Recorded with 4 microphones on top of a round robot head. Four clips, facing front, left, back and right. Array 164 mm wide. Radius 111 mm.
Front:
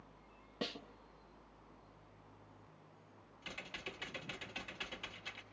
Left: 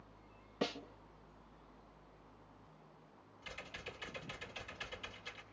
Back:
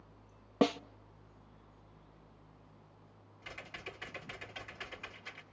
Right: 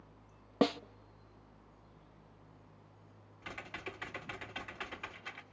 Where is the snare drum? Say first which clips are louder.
Right 9 dB, back 15 dB; 135° right, 0.6 m.